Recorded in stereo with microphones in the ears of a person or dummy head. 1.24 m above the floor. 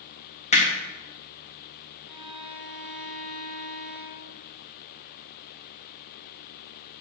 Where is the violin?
5° left (ahead or behind), 2.5 m.